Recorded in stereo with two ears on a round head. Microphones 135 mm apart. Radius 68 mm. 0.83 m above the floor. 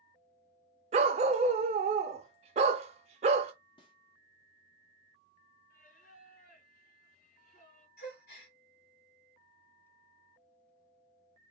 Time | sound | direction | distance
0.9 | a dog barking | 45° right (ahead or behind) | 0.7 m
3.8 | a snare drum | 30° left (ahead or behind) | 1.0 m
5.7 | singing | 50° left (ahead or behind) | 2.0 m
8.0 | a gasp | 70° left (ahead or behind) | 1.8 m